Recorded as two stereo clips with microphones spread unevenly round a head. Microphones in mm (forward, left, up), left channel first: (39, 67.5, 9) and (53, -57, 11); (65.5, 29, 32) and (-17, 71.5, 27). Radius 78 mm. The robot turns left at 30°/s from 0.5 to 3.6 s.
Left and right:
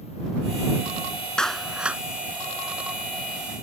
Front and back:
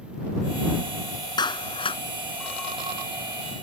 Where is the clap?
10° left; by 2.0 s 5° right.